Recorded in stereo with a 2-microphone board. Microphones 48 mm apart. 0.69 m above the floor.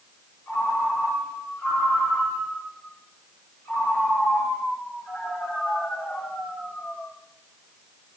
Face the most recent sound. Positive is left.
turn(degrees=90)